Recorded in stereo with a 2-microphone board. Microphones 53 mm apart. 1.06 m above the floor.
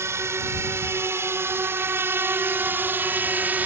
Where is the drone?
55° right (ahead or behind); by 3.7 s 30° right (ahead or behind).